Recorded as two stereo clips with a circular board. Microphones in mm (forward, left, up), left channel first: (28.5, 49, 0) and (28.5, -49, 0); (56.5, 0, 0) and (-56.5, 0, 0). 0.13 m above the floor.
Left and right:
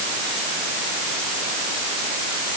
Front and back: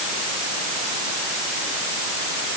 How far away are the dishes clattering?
No dishes clattering in this recording.